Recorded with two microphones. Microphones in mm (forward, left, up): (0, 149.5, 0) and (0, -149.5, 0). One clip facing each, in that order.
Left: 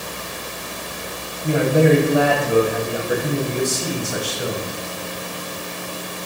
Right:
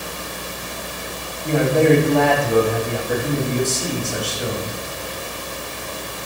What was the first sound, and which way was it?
A man speaking, 10° left (ahead or behind).